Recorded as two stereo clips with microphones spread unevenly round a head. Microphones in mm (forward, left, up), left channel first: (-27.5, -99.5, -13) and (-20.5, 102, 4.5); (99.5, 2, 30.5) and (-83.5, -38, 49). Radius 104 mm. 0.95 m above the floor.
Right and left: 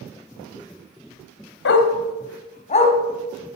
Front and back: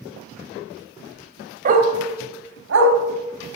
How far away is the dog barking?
About 2.5 m.